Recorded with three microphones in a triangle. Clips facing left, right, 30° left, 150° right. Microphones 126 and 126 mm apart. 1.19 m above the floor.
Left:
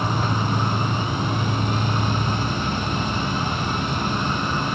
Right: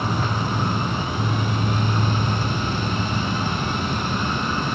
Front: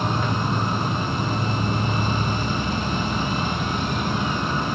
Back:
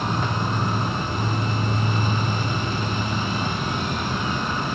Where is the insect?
50° left, 1.1 m.